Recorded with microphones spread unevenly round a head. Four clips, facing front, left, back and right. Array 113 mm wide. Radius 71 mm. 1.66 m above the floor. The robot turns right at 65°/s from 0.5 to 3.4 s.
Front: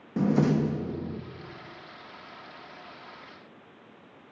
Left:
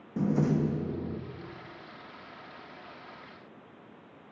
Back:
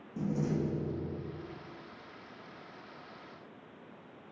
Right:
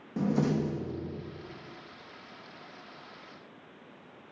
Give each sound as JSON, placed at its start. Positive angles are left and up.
{"t": 0.2, "sound": "a door slam", "azimuth_deg": -10, "distance_m": 2.0}